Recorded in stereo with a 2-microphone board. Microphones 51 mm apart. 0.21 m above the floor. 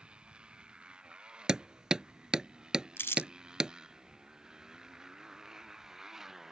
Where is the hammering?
15° right (ahead or behind).